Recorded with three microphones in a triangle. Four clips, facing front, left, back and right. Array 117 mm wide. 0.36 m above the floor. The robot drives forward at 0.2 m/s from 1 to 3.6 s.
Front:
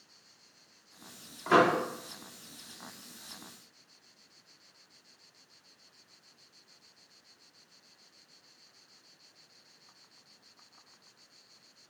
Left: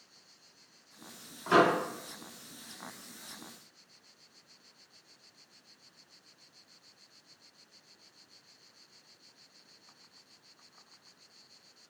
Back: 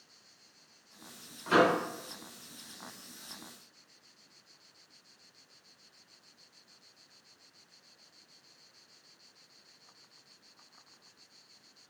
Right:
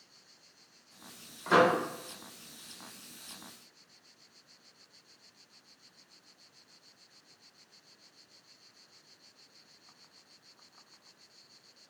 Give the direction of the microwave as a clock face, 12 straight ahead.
12 o'clock.